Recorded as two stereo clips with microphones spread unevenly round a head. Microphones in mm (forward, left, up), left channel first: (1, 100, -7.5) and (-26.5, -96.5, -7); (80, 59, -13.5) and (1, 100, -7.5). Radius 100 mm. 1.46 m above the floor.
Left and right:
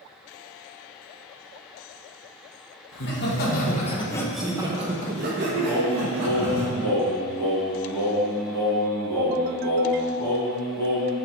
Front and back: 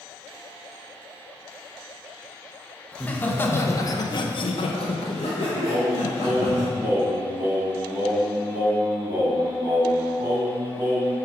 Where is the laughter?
50° left, 1.6 m; by 6.6 s 80° right, 2 m.